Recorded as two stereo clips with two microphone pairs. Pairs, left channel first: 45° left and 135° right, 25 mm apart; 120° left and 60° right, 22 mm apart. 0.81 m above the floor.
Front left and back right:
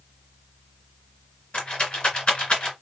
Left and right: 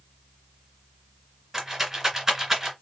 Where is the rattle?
5° left, 2 m.